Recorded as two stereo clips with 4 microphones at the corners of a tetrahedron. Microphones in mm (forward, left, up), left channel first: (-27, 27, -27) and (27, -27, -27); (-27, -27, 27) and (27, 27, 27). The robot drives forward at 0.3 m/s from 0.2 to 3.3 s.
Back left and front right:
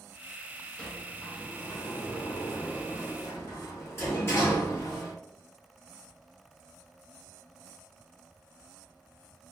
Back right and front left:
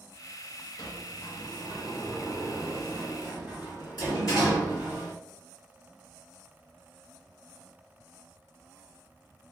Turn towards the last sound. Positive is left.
turn(degrees=-165)